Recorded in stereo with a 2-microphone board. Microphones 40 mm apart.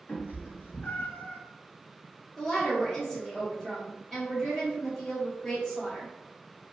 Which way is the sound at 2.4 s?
5° left (ahead or behind).